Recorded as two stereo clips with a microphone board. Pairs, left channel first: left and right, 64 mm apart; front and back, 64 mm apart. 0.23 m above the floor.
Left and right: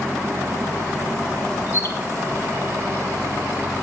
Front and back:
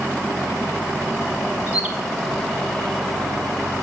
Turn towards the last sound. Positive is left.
turn(degrees=120)